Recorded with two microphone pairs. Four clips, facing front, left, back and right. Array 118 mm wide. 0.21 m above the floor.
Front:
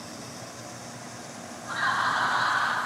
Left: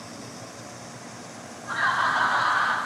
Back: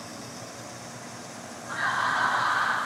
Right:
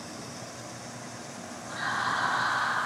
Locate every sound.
1.7 s laughter: 60° left, 1.9 m; by 2.8 s 75° left, 2.5 m